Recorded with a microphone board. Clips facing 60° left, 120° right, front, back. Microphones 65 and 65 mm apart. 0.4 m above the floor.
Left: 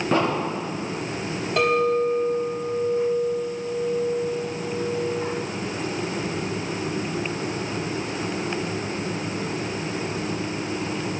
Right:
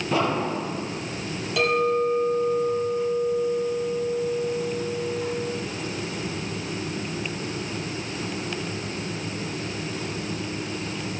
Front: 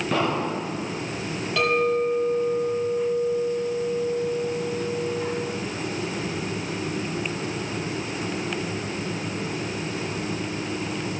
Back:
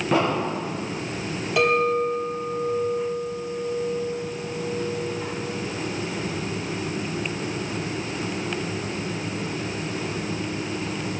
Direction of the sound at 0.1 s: 100° left.